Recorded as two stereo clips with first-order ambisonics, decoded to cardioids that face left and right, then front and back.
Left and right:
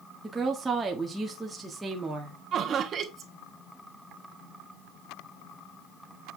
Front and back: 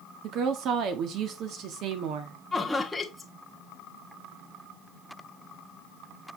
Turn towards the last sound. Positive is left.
turn(degrees=-75)